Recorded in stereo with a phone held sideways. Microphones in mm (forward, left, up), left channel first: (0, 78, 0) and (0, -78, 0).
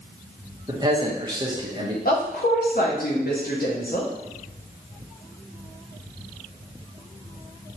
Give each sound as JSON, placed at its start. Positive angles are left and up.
{"t": 0.7, "sound": "a man speaking", "side_deg": -25, "distance_m": 1.0}
{"t": 2.0, "sound": "a woman speaking", "side_deg": 70, "distance_m": 0.8}